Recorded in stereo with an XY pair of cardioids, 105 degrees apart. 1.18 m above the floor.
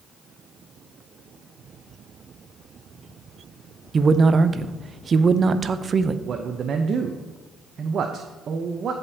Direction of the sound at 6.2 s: 50° right.